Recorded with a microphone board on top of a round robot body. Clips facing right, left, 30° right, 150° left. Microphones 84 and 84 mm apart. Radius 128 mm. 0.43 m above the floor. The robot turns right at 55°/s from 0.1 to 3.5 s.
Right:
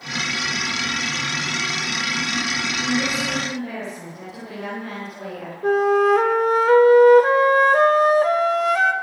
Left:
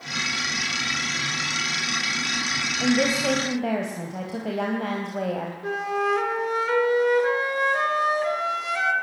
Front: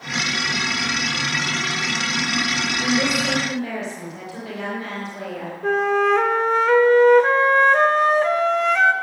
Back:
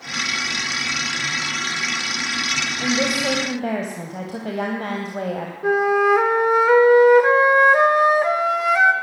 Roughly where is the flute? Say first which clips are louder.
Right 10 dB, back 2 dB; behind right.